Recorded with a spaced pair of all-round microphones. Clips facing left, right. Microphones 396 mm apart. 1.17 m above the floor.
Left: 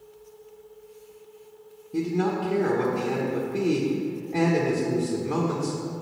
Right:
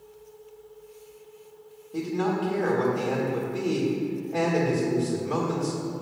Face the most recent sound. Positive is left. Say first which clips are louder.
# left 2 dB
turn(degrees=35)  # may be behind; listen again after turning